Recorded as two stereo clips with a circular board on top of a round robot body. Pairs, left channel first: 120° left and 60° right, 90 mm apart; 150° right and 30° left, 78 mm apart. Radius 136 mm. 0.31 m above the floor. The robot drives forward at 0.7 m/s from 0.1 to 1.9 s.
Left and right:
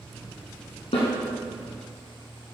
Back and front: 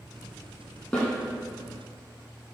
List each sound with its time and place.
0.9 s a snare drum: 140° left, 3.5 m